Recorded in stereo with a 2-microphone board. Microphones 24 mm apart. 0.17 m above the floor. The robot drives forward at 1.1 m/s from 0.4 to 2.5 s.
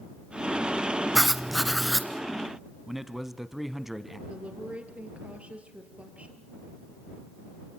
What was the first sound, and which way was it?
Writing, 5° right (ahead or behind).